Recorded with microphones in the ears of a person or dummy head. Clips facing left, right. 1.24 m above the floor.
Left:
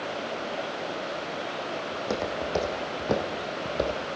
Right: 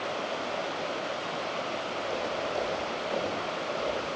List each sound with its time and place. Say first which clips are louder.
1.9 s footsteps: left 3 dB; 70° left (ahead or behind), 4 m; by 4.0 s 65° left (ahead or behind), 2.5 m